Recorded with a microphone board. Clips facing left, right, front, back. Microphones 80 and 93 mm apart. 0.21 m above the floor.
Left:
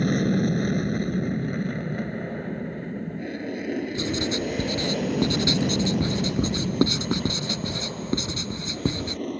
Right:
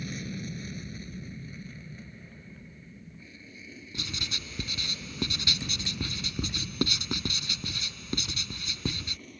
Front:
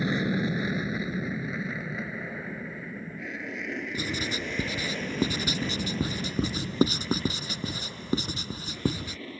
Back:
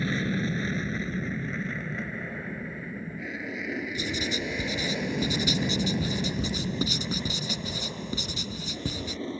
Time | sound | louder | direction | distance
0.0 | an aircraft | left 16 dB, front 2 dB | 75° left | ?
3.9 | writing | left 15 dB, back 1 dB | 35° left | ?